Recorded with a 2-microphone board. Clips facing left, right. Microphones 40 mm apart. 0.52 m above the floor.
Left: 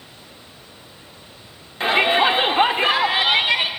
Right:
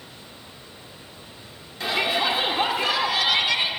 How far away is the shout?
About 1.5 m.